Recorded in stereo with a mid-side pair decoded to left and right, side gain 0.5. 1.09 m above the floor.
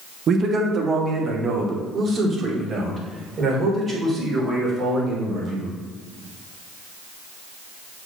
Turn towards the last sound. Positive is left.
turn(degrees=-40)